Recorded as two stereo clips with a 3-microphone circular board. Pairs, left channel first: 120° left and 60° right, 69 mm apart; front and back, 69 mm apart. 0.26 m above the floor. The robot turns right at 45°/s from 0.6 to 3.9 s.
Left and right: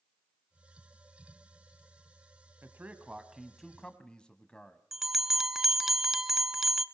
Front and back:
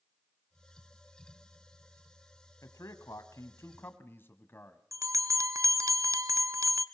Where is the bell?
145° right, 0.8 m.